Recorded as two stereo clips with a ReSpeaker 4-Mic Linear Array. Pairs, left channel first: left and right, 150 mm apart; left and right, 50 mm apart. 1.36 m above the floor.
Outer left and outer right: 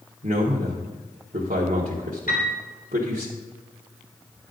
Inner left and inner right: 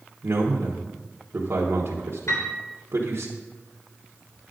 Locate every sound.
0.2 s a man speaking: 65° right (ahead or behind), 1.4 m
2.3 s a piano: 85° left, 3.5 m